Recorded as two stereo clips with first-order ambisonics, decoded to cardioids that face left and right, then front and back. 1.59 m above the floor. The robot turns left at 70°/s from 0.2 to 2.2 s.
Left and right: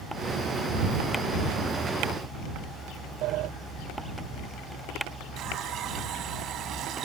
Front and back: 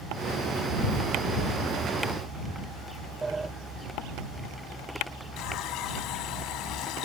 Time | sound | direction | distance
3.2 | a sliding door | 105° right | ?
5.4 | a running tap | 40° right | ?